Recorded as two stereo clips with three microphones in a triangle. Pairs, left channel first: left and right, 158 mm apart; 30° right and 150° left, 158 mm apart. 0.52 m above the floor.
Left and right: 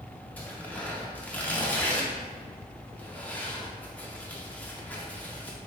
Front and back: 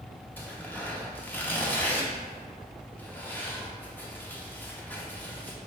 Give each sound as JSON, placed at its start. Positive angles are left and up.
{"t": 0.4, "sound": "tearing paper", "azimuth_deg": 25, "distance_m": 0.5}